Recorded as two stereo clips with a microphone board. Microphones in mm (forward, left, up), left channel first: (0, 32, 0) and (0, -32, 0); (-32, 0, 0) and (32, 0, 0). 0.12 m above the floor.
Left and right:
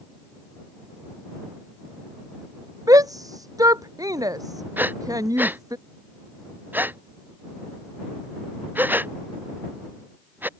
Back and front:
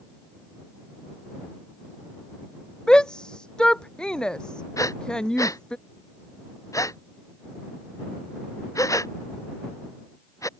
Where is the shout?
100° right.